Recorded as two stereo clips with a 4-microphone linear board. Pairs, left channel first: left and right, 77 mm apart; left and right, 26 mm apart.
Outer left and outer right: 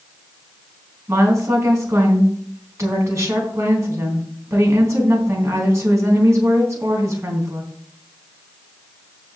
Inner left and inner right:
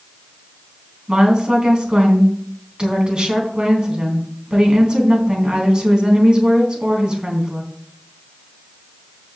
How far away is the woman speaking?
About 3.5 m.